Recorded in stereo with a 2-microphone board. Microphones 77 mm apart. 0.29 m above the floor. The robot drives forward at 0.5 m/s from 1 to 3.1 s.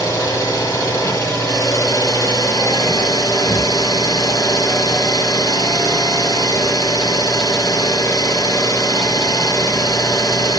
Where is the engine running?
50° left (ahead or behind), 6 m; by 10.6 s 60° left (ahead or behind), 5.5 m.